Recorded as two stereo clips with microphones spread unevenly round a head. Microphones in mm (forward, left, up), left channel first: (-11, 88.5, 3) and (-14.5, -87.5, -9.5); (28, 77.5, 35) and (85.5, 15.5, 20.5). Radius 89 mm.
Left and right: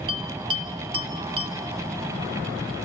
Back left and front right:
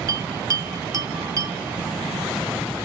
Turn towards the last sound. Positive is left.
turn(degrees=-40)